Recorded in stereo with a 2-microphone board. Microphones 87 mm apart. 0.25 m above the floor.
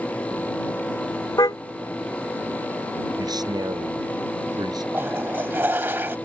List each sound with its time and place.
1.4 s a car horn: 45° left (ahead or behind)
3.2 s a man speaking: 50° right (ahead or behind)
4.9 s a toilet flushing: 25° right (ahead or behind)